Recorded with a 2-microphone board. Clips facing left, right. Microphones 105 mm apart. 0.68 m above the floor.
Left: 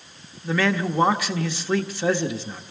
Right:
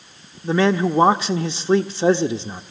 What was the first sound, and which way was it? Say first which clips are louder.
A man speaking: right 5 dB; 25° right (ahead or behind).